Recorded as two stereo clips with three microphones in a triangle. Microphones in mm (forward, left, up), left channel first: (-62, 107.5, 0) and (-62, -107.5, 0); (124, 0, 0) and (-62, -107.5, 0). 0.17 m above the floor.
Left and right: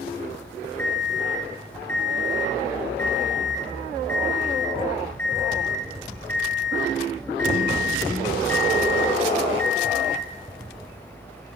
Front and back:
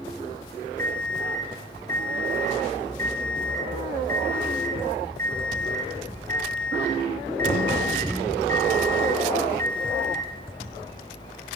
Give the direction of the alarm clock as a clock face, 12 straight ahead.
6 o'clock.